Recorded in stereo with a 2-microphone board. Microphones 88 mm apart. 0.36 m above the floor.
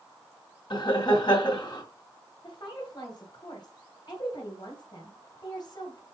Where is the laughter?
55° left (ahead or behind), 2.5 m.